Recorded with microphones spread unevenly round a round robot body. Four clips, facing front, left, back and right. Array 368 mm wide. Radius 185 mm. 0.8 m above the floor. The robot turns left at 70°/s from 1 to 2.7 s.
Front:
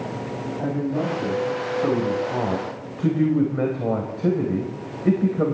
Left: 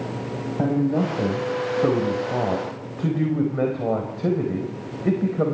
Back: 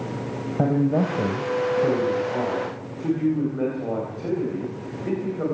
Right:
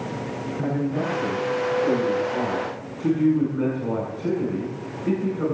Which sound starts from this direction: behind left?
A man speaking, at 0.6 s.